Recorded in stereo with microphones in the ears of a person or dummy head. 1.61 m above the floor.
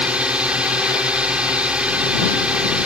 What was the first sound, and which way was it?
A drone, 5° right (ahead or behind).